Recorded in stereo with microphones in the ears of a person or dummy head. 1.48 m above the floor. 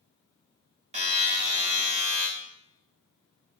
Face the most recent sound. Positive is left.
turn(degrees=-35)  # may be behind; listen again after turning